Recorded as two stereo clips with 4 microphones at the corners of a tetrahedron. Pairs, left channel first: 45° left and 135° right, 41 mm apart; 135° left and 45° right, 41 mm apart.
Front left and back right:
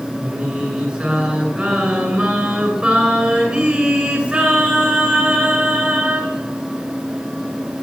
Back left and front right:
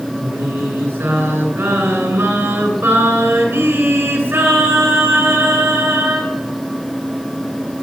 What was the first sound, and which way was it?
Singing, 70° right.